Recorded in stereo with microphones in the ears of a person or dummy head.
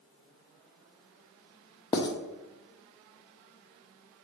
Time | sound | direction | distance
1.9 | writing | 25° left (ahead or behind) | 0.5 m